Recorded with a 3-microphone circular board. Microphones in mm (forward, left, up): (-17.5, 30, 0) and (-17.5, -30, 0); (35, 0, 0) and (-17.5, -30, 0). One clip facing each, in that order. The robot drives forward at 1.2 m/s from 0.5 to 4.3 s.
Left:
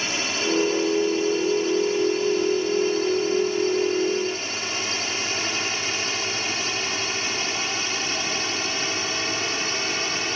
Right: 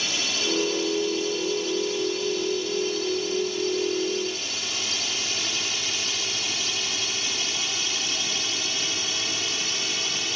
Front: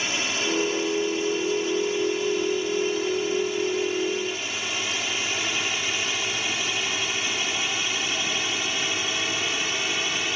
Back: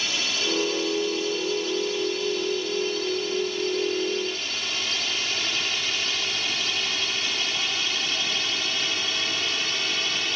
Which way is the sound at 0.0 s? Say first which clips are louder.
Left 3 dB, front 2 dB; 80° left.